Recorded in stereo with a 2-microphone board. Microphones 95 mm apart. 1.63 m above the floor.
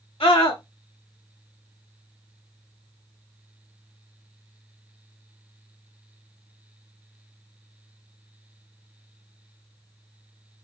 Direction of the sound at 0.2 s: 75° left (ahead or behind).